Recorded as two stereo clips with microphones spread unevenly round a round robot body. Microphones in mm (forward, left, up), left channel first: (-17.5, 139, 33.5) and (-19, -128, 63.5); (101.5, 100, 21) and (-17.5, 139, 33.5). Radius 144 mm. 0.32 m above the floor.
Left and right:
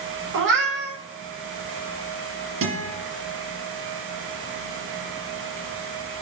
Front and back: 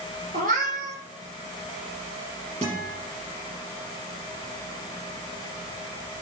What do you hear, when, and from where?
0.3 s a cat meowing: 140° right, 5 m
2.6 s a guitar: 130° right, 5 m